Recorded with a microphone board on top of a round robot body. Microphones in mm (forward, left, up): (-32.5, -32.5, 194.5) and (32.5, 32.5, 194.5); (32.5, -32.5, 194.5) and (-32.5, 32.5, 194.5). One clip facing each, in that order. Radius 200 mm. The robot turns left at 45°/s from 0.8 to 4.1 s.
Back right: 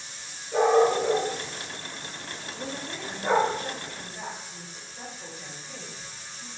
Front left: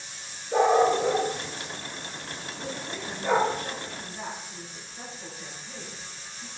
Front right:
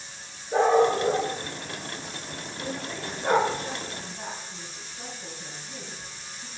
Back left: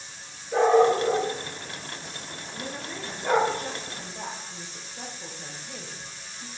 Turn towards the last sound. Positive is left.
turn(degrees=145)